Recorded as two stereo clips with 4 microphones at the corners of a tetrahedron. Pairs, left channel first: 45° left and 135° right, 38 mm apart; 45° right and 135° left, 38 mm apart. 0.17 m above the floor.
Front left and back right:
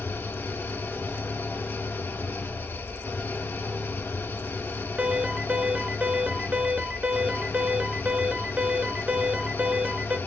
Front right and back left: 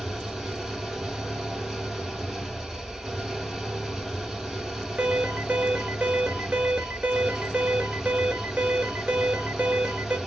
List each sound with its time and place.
0.0 s an engine running: 50° left, 1.3 m
5.0 s an alarm: straight behind, 1.3 m